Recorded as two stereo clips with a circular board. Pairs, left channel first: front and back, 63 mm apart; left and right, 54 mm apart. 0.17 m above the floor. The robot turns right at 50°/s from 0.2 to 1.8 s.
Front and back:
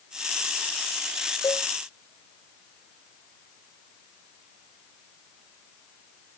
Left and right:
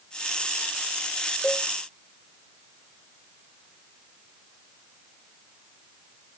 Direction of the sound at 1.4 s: 15° left.